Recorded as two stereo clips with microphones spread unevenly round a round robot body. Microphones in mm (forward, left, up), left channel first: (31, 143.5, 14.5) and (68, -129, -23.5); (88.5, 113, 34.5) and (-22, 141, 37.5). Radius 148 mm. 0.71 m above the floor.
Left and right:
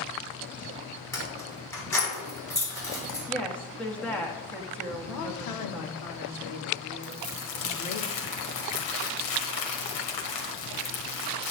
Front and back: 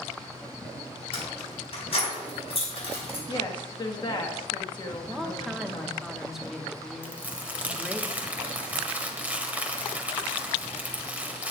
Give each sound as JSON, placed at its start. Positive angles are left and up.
{"t": 1.1, "sound": "keys jangling", "azimuth_deg": 15, "distance_m": 4.5}
{"t": 3.3, "sound": "a woman speaking", "azimuth_deg": 5, "distance_m": 1.3}
{"t": 5.1, "sound": "a woman speaking", "azimuth_deg": 80, "distance_m": 1.4}
{"t": 7.0, "sound": "crumpling", "azimuth_deg": 90, "distance_m": 1.7}